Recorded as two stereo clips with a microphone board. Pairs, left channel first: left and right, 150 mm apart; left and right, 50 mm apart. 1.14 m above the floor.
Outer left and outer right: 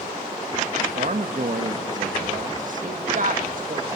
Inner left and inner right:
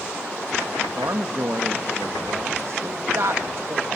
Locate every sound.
0.8 s a man speaking: 60° right (ahead or behind), 1.4 m
2.8 s a woman speaking: 60° right (ahead or behind), 1.6 m